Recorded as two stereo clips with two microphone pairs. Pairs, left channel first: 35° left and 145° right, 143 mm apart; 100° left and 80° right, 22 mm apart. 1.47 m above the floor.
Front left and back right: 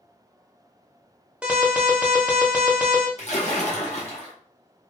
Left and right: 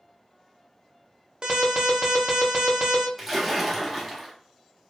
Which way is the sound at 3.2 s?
5° left.